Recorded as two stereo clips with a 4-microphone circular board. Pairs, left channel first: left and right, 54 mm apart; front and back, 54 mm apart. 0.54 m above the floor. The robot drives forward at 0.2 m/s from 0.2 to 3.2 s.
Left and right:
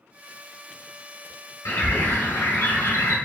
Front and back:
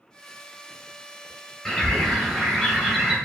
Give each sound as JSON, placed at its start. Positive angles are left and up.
{"t": 1.6, "sound": "a bird", "azimuth_deg": 85, "distance_m": 0.9}